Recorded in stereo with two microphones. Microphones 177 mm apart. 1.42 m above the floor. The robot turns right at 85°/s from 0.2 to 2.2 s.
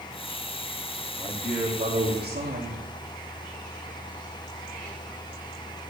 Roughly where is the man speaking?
Behind left.